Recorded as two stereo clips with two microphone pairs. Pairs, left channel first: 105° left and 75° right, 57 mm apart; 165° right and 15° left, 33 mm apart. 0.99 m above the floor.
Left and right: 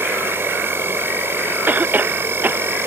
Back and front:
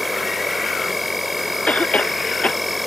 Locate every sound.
0.0 s an insect: 65° right
1.7 s a cough: 125° right